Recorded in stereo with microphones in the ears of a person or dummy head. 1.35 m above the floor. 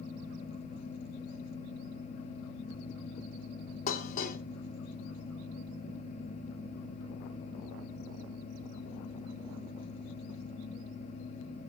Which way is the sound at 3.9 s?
45° left (ahead or behind).